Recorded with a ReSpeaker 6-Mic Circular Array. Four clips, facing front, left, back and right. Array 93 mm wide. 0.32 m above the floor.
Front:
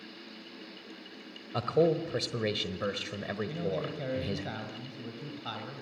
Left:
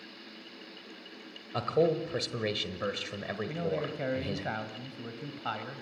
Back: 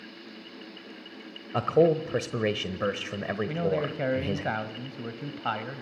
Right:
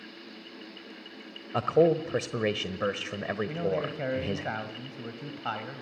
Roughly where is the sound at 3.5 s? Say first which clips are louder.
Right 1 dB, back 8 dB; behind.